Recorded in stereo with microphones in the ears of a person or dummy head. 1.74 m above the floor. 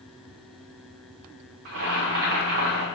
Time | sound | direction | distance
1.6 | boiling | 45° right (ahead or behind) | 0.7 m